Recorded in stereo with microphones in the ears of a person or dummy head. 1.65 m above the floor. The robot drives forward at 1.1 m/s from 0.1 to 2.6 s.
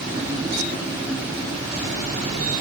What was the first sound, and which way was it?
Only background noise.